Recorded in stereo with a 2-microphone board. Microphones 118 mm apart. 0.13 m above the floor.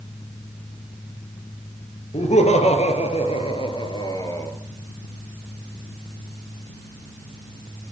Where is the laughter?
70° left (ahead or behind), 4 m; by 4.5 s 20° left (ahead or behind), 2.5 m.